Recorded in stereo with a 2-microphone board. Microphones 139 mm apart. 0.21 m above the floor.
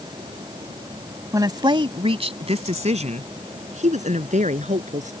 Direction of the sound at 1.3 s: 25° right (ahead or behind).